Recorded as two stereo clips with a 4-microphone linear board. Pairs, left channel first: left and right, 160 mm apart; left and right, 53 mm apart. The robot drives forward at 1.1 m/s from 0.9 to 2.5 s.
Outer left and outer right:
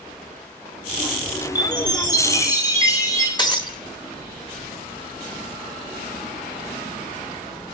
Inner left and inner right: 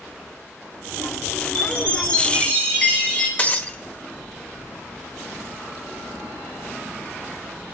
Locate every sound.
1.6 s a chime: 25° left (ahead or behind), 4 m; by 3.3 s 20° left (ahead or behind), 5 m
3.4 s breaking glass: 30° left (ahead or behind), 1.4 m